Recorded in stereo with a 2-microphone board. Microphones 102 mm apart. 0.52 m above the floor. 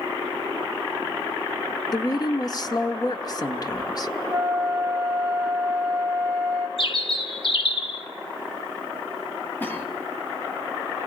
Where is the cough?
20° left (ahead or behind), 3.5 m.